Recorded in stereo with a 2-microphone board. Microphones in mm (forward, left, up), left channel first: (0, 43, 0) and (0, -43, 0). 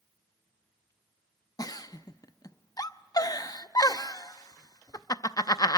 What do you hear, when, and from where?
1.6 s a giggle: 50° left (ahead or behind), 0.5 m